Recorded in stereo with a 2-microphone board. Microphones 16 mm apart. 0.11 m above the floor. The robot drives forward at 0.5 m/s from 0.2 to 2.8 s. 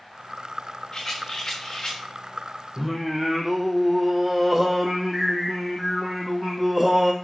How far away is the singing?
About 1.5 m.